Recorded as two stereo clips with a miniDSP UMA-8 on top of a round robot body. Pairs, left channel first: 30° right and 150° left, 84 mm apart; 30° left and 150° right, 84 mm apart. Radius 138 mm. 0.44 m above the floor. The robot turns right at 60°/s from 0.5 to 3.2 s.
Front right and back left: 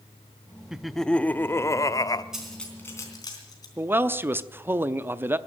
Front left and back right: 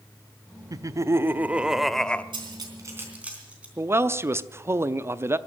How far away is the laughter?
About 0.9 m.